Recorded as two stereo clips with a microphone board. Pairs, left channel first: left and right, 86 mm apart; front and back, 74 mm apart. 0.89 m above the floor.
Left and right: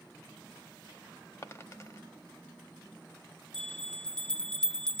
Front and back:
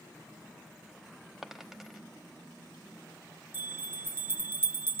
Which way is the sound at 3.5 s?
160° left.